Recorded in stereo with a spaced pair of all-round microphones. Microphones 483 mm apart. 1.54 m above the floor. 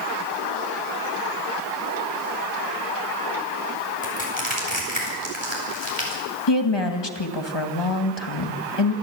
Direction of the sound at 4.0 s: 80° right.